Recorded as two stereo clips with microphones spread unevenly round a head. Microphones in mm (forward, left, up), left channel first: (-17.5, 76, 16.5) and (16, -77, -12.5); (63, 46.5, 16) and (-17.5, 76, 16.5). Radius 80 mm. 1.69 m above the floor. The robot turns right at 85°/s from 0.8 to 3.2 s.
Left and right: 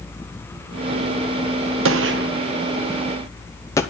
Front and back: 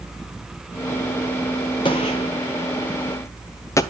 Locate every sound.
1.9 s a gunshot: 80° right, 0.8 m; by 3.8 s 35° left, 0.8 m